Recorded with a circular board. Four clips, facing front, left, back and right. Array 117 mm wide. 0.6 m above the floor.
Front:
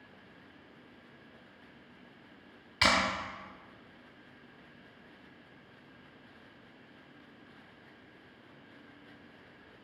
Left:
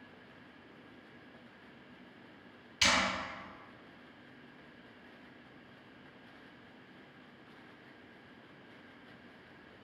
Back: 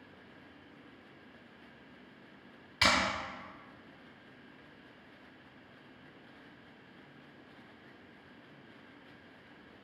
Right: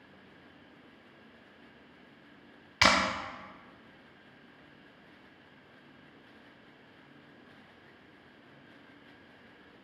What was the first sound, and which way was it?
A clap, 75° right.